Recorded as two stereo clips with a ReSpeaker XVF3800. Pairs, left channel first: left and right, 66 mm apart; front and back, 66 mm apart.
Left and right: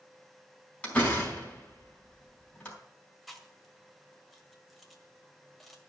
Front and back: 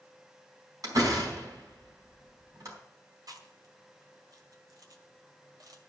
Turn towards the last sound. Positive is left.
turn(degrees=175)